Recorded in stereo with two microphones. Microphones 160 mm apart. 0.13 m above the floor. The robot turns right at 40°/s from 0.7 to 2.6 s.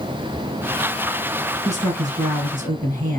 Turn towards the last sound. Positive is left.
turn(degrees=-80)